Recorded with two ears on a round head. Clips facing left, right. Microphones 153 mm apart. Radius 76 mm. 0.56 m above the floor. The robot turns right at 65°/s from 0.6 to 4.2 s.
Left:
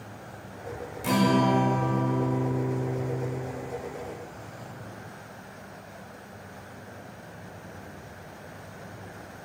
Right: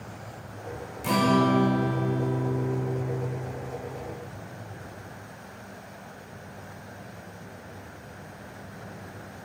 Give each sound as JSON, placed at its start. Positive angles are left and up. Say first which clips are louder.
{"t": 1.0, "sound": "a guitar", "louder": "even", "azimuth_deg": 5, "distance_m": 1.1}